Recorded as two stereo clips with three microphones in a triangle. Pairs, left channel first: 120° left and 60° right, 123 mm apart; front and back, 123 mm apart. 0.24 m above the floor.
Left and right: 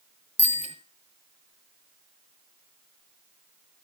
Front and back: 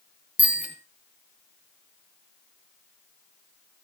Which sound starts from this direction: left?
A bicycle bell, at 0.4 s.